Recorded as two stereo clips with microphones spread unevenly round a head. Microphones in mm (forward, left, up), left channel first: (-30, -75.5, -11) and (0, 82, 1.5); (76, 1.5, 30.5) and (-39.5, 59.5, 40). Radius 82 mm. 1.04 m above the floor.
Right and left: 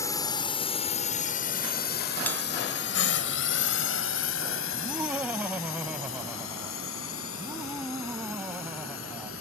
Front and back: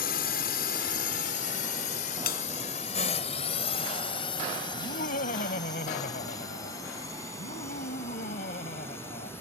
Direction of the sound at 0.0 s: 30° right.